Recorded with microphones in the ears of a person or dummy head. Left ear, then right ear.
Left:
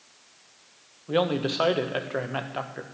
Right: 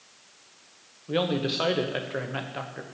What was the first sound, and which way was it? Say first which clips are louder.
A man speaking: left 2 dB; 20° left (ahead or behind).